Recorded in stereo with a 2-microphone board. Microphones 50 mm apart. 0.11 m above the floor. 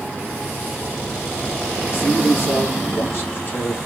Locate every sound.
1.9 s a man speaking: 50° left (ahead or behind), 2 m